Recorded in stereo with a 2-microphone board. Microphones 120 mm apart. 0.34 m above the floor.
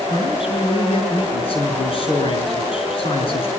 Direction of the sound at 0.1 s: 50° left (ahead or behind).